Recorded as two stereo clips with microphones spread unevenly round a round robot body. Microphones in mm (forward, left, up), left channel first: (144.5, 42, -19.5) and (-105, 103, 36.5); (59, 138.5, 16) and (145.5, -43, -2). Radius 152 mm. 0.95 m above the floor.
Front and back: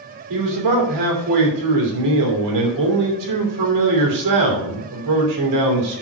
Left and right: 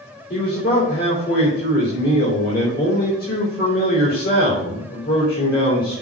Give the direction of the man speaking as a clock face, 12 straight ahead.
6 o'clock.